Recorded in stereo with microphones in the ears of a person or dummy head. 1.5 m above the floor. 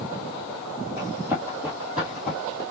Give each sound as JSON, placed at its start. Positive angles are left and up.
{"t": 1.0, "sound": "running footsteps", "side_deg": -20, "distance_m": 2.5}